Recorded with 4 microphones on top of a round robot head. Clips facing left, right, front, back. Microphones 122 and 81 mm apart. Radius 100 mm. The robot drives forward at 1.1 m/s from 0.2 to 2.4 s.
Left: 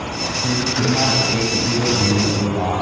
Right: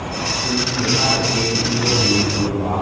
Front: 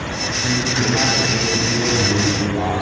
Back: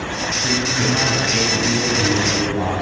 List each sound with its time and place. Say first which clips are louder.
0.4 s a man speaking: left 2 dB, front 1 dB; 70° left, 6.5 m; by 2.8 s 90° left, 6 m